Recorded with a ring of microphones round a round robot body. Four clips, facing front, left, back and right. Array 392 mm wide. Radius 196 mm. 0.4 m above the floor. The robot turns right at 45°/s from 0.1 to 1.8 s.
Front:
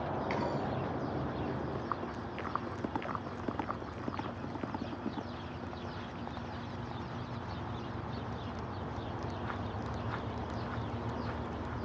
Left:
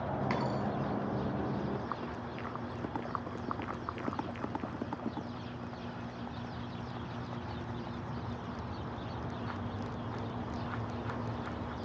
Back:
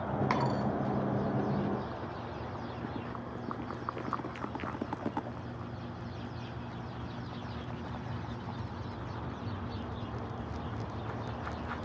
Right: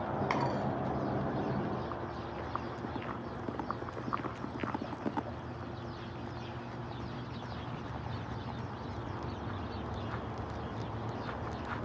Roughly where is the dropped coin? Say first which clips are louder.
Right 2 dB, back 4 dB; behind right.